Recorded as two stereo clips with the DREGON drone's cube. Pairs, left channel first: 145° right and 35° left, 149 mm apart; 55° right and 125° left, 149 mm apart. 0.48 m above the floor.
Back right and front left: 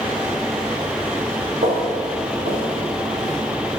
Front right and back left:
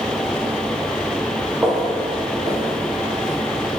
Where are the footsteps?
40° left, 3.5 m; by 3.4 s 30° left, 5.5 m.